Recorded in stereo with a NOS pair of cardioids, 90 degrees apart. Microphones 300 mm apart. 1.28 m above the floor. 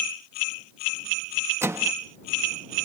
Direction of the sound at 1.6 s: 10° right.